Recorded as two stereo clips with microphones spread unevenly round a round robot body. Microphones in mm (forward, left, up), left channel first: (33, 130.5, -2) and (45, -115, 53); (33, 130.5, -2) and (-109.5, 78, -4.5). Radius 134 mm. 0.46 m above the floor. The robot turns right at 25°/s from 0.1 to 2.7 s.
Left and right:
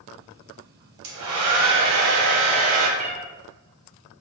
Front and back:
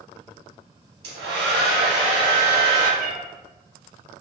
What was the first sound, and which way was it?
A hair dryer, 125° right.